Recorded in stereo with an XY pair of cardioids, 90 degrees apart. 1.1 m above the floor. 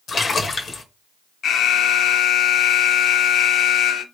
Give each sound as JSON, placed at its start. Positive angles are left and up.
{"t": 0.1, "sound": "a splash", "azimuth_deg": 60, "distance_m": 1.0}
{"t": 1.4, "sound": "an alarm", "azimuth_deg": 70, "distance_m": 0.7}